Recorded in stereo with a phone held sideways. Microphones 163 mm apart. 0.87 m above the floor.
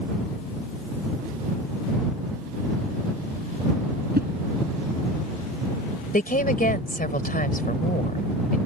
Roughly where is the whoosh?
Right.